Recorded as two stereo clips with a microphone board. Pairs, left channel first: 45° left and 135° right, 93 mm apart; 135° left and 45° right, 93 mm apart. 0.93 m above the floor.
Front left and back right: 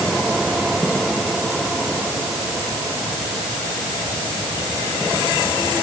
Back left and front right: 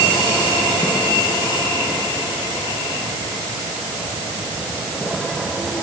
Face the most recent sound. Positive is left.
No sound to turn to.